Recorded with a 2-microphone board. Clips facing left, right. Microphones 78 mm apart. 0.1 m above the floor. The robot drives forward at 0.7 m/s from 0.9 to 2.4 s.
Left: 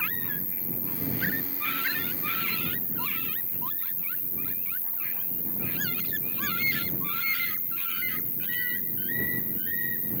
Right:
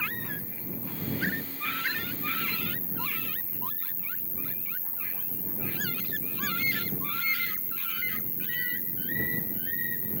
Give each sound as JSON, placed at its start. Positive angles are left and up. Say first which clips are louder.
{"t": 0.0, "sound": "an insect", "louder": "even", "side_deg": 80, "distance_m": 4.0}